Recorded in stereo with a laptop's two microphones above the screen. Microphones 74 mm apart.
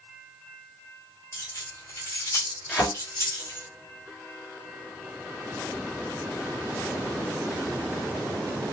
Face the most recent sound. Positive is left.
turn(degrees=10)  # may be behind; listen again after turning